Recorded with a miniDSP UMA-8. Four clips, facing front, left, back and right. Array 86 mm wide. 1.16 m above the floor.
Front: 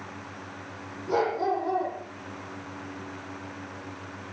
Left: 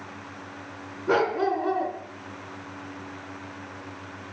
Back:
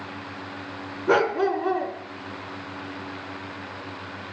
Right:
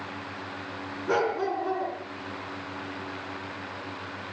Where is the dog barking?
170° left, 4 m.